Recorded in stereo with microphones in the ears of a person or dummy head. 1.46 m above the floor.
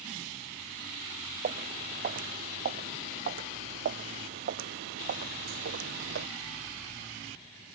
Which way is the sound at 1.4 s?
40° right (ahead or behind).